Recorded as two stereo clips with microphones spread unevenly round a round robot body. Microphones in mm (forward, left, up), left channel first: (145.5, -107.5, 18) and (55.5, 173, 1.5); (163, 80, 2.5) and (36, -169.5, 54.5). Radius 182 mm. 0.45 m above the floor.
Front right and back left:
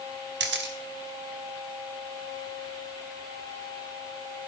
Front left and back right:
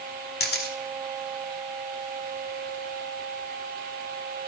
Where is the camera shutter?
80° left, 1.8 m.